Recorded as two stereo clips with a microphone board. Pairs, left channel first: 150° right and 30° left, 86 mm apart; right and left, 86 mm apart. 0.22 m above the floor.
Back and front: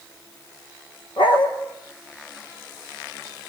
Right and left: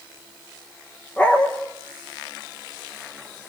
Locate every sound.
1.2 s a dog barking: 165° right, 4 m